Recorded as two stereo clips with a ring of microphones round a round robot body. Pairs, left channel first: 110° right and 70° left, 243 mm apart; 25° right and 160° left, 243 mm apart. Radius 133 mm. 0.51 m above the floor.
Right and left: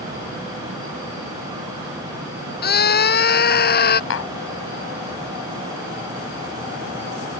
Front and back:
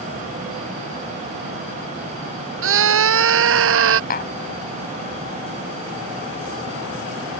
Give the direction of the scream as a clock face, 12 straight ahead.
5 o'clock.